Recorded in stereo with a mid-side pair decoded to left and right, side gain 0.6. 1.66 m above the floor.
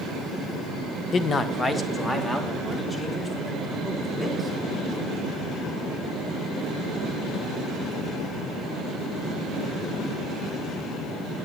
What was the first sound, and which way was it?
A man speaking, 40° left.